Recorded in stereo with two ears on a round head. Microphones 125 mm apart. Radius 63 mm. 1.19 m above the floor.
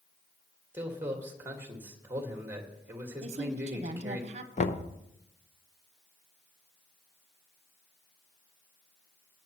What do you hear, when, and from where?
0.7 s a man speaking: 15° right (ahead or behind), 1.8 m
3.2 s a woman speaking: 50° right (ahead or behind), 0.8 m
4.6 s knocking: 50° left (ahead or behind), 0.7 m